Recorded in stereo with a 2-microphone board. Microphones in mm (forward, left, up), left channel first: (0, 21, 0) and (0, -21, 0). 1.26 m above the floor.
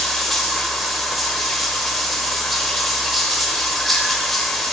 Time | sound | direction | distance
0.0 | running water | centre (ahead or behind) | 1.1 m